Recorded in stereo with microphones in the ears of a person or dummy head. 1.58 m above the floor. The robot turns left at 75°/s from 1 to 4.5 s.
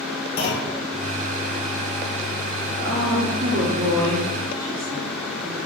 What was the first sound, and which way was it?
A clunk, 45° left (ahead or behind).